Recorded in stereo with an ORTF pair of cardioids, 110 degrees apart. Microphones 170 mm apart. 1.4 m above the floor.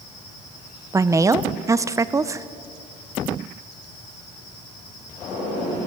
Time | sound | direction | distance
0.9 | a woman speaking | 20° right | 0.8 m